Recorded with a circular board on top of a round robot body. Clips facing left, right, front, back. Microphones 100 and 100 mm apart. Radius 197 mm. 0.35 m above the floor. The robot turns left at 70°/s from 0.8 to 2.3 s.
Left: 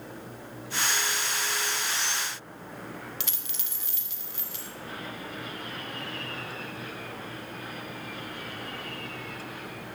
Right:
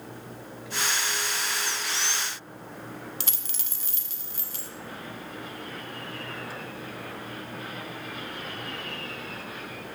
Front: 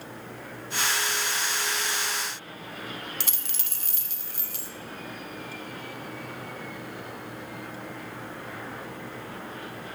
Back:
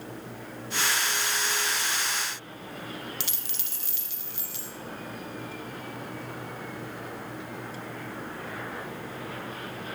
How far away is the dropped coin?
About 0.9 m.